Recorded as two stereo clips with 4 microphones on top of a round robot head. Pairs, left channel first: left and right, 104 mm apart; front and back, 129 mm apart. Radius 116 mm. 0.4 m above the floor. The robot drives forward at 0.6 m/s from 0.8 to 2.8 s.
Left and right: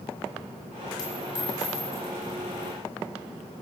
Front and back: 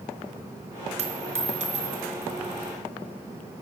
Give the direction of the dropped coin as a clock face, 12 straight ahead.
7 o'clock.